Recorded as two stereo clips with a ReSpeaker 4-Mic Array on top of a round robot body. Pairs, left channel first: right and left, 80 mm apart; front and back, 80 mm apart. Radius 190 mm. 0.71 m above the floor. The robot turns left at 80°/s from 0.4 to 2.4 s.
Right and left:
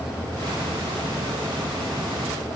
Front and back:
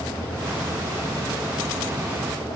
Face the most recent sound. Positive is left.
No sound to turn to.